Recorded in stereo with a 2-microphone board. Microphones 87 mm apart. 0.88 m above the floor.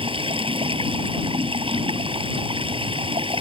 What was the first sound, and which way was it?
Running water, 90° right.